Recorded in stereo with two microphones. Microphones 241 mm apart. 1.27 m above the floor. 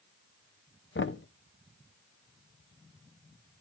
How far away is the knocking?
About 0.5 m.